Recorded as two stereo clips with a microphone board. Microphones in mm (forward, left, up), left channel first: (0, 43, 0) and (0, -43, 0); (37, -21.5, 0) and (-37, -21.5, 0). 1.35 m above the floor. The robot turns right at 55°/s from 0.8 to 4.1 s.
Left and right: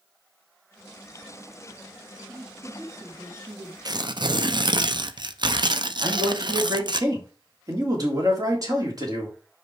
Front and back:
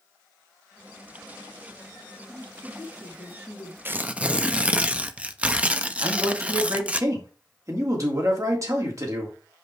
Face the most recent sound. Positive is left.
turn(degrees=-135)